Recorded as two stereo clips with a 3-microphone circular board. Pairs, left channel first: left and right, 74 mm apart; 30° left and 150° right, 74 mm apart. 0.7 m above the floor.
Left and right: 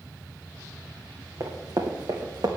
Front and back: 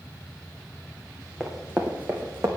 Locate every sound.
1.4 s running footsteps: 70° right, 2.5 m; by 2.5 s 95° right, 2.5 m